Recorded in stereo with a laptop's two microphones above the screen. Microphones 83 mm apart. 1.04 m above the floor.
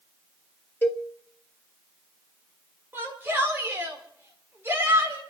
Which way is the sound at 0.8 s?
25° left (ahead or behind).